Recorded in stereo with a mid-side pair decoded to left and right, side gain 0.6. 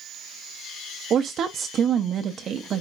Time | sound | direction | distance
1.1 | a woman speaking | 45° right | 0.5 m